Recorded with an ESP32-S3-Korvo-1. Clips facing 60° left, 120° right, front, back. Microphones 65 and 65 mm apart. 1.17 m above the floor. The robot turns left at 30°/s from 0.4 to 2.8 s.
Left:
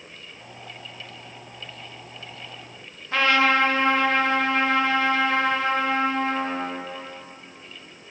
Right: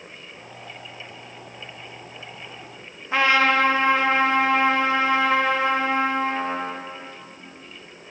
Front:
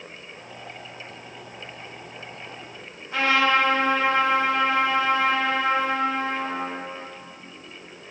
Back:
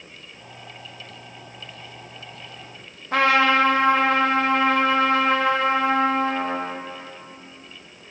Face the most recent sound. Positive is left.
turn(degrees=165)